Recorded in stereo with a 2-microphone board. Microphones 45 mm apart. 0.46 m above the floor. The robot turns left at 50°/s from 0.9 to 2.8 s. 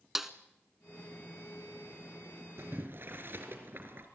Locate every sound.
0.1 s a snare drum: 5° right (ahead or behind), 1.1 m
2.6 s boiling: 60° right (ahead or behind), 3 m; by 4.1 s 50° right (ahead or behind), 3 m